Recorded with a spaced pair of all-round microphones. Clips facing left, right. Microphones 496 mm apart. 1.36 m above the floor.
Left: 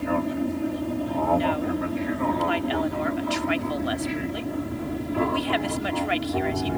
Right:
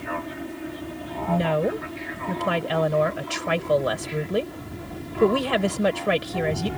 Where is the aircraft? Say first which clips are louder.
Left 8 dB; 60° left (ahead or behind); by 6.8 s 70° left (ahead or behind).